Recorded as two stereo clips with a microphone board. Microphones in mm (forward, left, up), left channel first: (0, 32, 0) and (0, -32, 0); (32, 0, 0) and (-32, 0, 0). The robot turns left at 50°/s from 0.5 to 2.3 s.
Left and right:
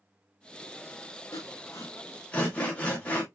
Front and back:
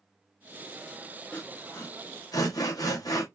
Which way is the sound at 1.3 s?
70° left.